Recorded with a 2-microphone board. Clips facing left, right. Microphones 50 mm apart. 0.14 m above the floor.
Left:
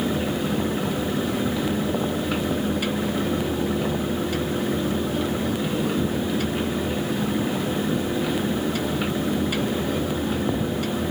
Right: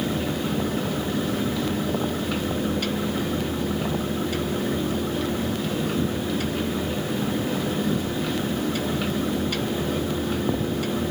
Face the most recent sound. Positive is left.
No sound to turn to.